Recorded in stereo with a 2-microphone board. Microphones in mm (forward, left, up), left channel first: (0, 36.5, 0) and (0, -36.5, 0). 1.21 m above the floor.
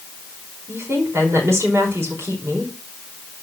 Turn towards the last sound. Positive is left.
turn(degrees=-35)  # may be behind; listen again after turning